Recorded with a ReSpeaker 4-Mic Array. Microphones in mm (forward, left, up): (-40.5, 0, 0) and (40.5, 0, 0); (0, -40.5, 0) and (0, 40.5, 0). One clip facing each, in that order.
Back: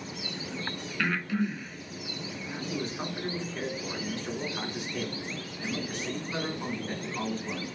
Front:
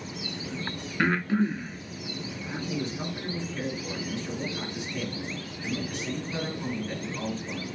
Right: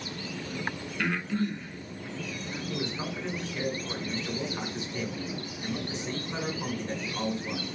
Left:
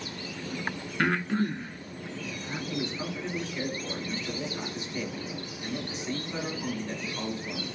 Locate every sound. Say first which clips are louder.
1.0 s breathing: front 5 dB, left 3 dB; 55° left, 0.8 m
2.7 s a man speaking: front 1 dB, even; 140° right, 2.5 m